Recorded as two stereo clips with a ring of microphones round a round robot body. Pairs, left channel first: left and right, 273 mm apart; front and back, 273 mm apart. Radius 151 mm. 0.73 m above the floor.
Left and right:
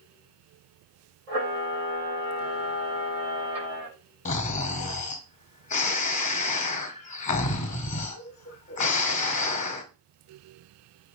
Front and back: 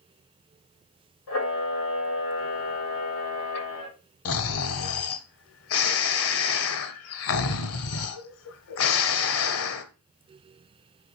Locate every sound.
1.3 s a camera shutter: 30° right, 7.5 m
4.2 s snoring: 30° left, 0.8 m